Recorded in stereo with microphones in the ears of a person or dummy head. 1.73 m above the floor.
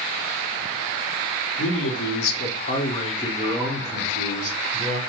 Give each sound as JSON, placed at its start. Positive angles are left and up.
{"t": 1.6, "sound": "a man speaking", "side_deg": 80, "distance_m": 1.3}